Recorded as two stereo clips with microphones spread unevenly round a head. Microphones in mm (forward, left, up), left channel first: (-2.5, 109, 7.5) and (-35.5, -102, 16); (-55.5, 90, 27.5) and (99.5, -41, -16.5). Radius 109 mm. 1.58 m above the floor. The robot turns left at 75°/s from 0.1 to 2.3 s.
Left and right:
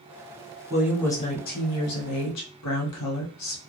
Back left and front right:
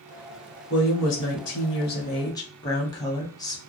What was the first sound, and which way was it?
A woman speaking, 175° right.